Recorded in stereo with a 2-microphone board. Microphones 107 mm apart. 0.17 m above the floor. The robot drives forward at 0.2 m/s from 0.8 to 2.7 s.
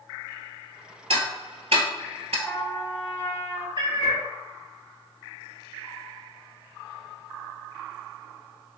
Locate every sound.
1.1 s ticking: 70° right (ahead or behind), 0.7 m; by 2.4 s 80° right, 0.7 m
2.5 s a trumpet: 20° left (ahead or behind), 0.6 m; by 3.7 s 25° left (ahead or behind), 0.5 m
3.8 s a cat meowing: 50° right (ahead or behind), 0.7 m